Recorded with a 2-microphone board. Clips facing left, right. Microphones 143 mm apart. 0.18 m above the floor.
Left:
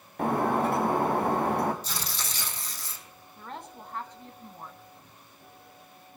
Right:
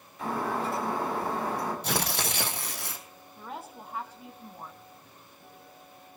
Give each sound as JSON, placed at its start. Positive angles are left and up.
{"t": 0.2, "sound": "breaking glass", "side_deg": 60, "distance_m": 3.5}
{"t": 1.8, "sound": "tearing paper", "side_deg": -65, "distance_m": 1.6}
{"t": 3.4, "sound": "a woman speaking", "side_deg": -5, "distance_m": 1.2}